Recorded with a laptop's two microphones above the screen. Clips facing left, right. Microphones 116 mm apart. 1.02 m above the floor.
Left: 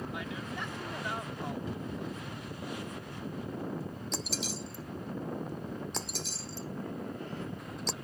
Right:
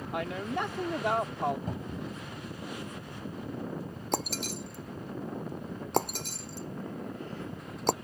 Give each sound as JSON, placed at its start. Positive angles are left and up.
{"t": 0.1, "sound": "a woman speaking", "side_deg": -65}
{"t": 1.7, "sound": "a cupboard door", "side_deg": -45}
{"t": 4.1, "sound": "breaking glass", "side_deg": -50}